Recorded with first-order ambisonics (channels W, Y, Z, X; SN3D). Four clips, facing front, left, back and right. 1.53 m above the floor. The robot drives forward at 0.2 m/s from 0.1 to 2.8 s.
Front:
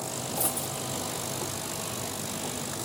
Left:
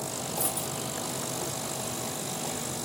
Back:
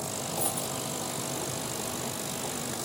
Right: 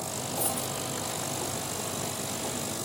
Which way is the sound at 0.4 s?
25° left.